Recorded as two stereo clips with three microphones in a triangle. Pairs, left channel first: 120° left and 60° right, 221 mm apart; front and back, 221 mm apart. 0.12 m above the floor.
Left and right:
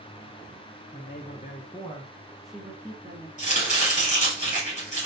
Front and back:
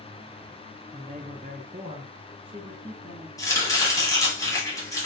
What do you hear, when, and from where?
0.9 s a man speaking: 135° left, 1.5 m; by 3.3 s 115° right, 1.4 m
3.4 s chopping: 70° left, 3 m